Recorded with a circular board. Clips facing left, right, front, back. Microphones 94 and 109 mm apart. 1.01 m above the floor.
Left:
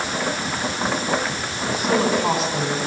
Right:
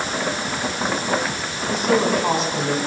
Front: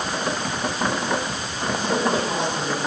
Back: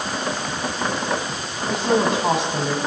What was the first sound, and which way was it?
A woman speaking, 175° left.